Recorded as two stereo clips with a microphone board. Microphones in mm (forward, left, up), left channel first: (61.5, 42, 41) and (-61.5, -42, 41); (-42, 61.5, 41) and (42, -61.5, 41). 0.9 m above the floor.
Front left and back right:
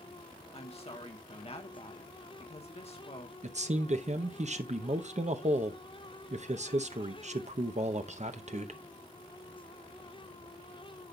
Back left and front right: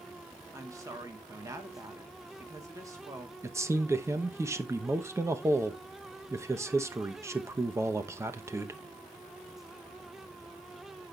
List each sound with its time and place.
0.5 s a woman speaking: 5° left, 1.1 m
3.4 s a man speaking: 125° right, 0.8 m